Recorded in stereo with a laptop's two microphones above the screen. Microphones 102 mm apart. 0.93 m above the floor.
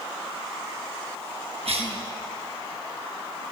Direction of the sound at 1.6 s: 70° right (ahead or behind).